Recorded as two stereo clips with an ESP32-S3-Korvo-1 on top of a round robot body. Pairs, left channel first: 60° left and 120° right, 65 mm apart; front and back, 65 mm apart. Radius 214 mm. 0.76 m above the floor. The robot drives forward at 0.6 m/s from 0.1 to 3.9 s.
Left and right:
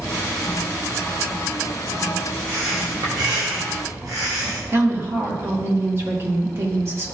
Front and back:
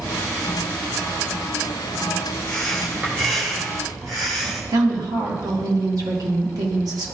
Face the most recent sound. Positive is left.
turn(degrees=-170)